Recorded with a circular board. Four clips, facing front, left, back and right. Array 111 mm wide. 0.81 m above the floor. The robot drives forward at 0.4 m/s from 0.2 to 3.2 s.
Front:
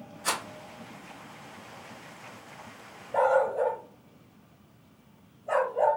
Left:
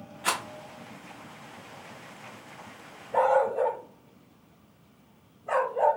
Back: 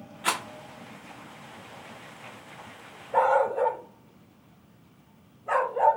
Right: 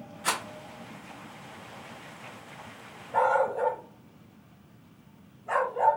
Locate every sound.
0.2 s a rattle: 170° left, 1.0 m
3.1 s a dog barking: straight behind, 1.0 m